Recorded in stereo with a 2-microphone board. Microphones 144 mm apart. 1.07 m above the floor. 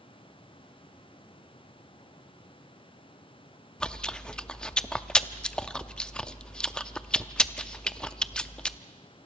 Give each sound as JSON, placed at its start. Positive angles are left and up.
{"t": 3.8, "sound": "chewing", "side_deg": 5, "distance_m": 0.6}